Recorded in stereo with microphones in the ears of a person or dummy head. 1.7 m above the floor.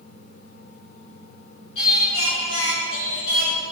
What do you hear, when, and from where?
1.8 s singing: 80° left, 6.5 m